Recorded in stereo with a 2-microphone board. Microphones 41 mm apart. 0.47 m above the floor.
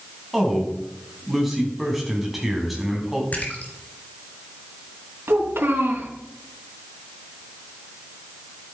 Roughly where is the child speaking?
Right.